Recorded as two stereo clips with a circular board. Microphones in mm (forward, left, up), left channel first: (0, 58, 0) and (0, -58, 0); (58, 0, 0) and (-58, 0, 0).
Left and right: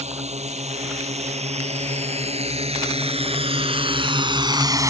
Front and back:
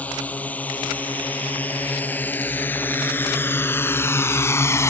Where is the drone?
75° right; by 4.9 s 50° right.